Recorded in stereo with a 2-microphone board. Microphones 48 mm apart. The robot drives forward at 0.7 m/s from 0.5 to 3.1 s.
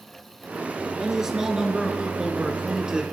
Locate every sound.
1.0 s a man speaking: 10° right (ahead or behind), 3.5 m; by 3.0 s 20° right (ahead or behind), 2.5 m